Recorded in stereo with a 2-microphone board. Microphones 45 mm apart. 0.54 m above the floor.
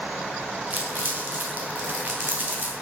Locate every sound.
0.7 s crumpling: 45° right (ahead or behind), 3 m